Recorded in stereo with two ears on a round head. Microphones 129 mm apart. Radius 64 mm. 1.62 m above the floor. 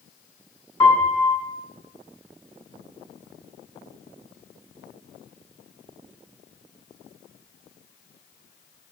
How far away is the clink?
I don't hear a clink.